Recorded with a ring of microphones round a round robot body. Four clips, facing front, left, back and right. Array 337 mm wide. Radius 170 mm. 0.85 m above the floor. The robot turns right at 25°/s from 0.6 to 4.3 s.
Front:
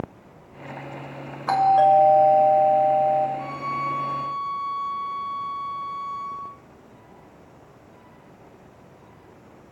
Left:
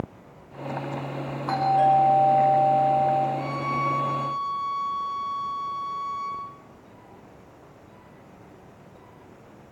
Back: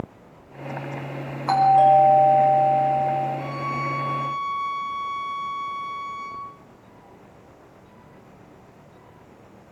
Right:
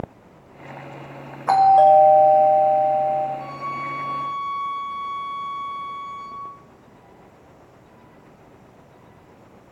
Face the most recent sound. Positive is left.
turn(degrees=150)